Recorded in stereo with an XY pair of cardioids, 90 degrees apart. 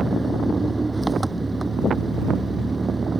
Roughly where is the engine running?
Ahead right.